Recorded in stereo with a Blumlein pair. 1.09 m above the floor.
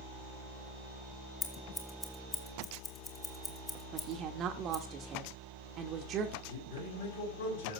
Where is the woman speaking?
30° right, 1.3 m.